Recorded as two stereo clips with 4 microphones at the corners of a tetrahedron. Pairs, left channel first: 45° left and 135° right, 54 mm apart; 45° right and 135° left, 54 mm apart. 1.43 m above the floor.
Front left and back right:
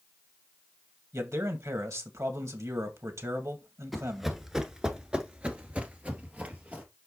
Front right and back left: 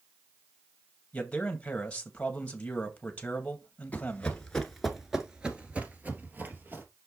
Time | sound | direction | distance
1.1 | a man speaking | 115° right | 2 m
3.9 | running footsteps | 50° right | 1.5 m